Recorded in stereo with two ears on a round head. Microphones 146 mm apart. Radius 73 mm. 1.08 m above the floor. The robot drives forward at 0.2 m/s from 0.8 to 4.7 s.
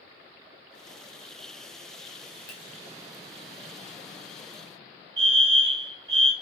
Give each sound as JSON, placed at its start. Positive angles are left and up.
{"t": 2.5, "sound": "a finger snap", "side_deg": 20, "distance_m": 1.1}
{"t": 5.2, "sound": "a fire alarm", "side_deg": -20, "distance_m": 1.5}